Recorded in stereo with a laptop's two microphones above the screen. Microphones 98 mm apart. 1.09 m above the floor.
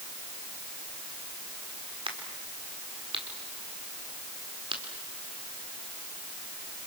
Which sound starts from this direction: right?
A crack, at 2.1 s.